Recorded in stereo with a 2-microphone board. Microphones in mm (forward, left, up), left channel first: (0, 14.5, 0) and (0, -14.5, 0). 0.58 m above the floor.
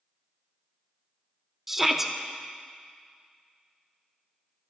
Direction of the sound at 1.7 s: 10° right (ahead or behind).